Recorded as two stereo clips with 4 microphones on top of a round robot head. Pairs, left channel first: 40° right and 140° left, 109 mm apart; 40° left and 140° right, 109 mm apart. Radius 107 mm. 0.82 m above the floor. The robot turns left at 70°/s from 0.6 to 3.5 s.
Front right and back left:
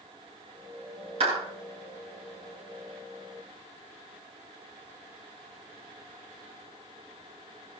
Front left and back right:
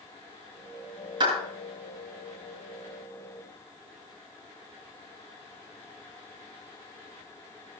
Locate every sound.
1.2 s a clap: 170° left, 9.5 m; by 1.4 s 160° left, 9.5 m